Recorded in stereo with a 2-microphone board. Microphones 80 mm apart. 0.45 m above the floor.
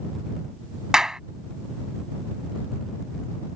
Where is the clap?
10° right (ahead or behind).